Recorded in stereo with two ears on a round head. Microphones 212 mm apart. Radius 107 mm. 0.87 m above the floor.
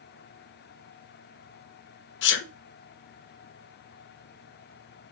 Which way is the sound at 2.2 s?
50° left (ahead or behind).